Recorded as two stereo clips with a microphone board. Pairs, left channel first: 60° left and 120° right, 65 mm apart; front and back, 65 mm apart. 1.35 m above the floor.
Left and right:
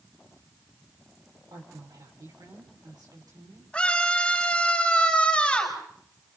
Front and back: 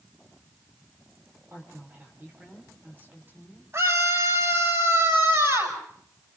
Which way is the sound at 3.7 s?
135° left.